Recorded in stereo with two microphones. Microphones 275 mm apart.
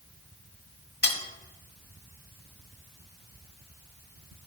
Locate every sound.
1.0 s cutlery clinking: 35° left (ahead or behind), 1.1 m